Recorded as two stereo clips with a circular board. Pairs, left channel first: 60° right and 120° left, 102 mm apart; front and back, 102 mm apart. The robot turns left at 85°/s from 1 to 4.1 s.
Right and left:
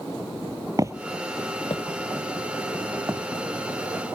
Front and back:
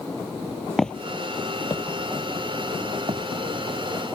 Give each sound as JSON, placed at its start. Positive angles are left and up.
{"t": 0.8, "sound": "footsteps", "azimuth_deg": 85}